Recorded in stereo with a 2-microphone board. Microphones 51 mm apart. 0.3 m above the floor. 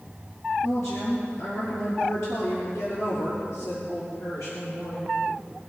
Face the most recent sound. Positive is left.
turn(degrees=80)